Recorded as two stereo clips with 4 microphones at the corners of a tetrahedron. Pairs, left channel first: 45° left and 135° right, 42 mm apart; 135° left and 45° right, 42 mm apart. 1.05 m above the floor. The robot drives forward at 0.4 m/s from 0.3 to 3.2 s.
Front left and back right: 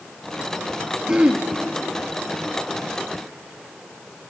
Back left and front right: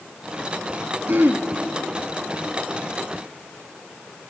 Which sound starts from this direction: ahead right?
Throat clearing, at 1.1 s.